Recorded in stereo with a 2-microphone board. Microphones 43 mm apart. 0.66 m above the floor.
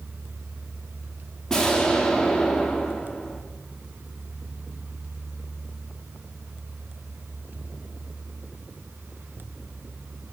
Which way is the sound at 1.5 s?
15° left (ahead or behind).